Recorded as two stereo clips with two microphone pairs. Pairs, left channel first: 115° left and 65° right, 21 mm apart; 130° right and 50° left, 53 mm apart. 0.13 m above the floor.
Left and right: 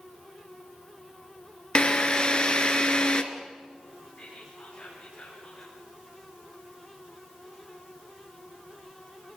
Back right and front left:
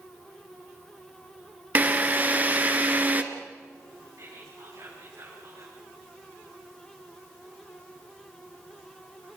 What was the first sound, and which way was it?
A drill, 90° left.